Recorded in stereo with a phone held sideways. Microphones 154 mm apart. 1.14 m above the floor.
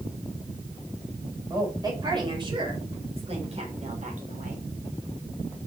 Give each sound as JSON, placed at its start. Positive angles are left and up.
{"t": 1.5, "sound": "a woman speaking", "side_deg": -25, "distance_m": 4.5}